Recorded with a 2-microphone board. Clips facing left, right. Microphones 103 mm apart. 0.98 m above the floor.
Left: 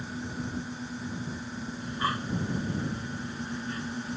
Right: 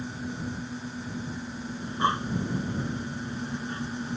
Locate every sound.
1.8 s breathing: 25° right (ahead or behind)